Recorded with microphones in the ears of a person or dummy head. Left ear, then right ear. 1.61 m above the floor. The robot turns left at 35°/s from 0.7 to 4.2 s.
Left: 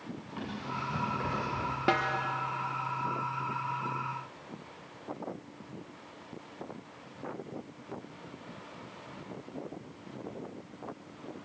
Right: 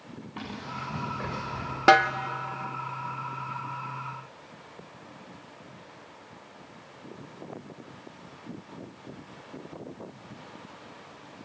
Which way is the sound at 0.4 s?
20° right (ahead or behind).